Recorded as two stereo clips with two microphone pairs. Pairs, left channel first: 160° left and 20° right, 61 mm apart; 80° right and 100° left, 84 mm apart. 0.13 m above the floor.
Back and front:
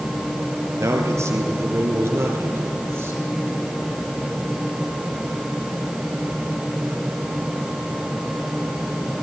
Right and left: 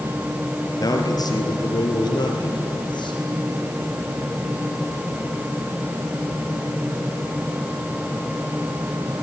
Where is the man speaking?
45° right, 2.5 m; by 3.2 s 65° right, 3.5 m.